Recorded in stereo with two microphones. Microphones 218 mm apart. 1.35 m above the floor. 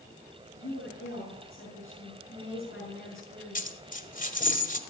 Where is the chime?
I don't hear a chime.